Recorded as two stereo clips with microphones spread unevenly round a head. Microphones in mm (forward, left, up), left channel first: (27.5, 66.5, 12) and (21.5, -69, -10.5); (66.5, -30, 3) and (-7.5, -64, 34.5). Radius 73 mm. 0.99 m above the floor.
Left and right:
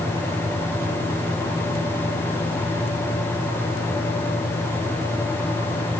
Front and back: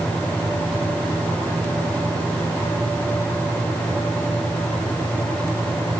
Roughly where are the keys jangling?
No keys jangling in this recording.